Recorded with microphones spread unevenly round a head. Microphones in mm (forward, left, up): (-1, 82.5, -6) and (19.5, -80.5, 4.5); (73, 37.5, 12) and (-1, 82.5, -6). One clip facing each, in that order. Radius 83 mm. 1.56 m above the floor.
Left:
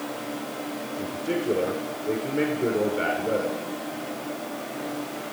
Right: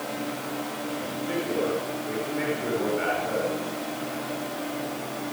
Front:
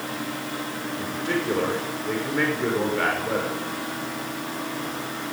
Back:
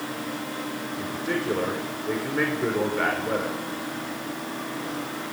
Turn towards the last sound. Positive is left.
turn(degrees=60)